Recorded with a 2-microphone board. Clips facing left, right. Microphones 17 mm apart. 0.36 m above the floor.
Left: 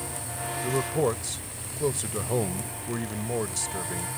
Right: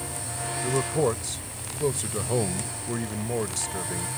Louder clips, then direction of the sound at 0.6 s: Right 1 dB; centre (ahead or behind).